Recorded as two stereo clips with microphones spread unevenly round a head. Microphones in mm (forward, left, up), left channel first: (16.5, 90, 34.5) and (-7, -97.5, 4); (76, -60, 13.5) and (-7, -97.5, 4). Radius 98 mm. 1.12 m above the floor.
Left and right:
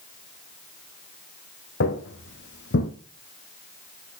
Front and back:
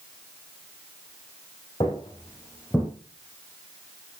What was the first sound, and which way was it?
Footsteps, 80° left.